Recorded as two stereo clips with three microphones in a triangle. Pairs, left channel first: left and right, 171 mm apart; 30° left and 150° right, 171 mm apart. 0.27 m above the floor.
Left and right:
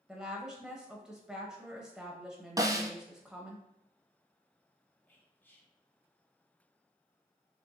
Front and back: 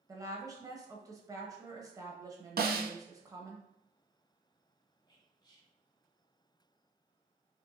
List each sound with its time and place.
0.1 s a woman speaking: 170° right, 0.9 m
2.6 s a snare drum: 160° right, 0.5 m
5.1 s whispering: 30° left, 1.0 m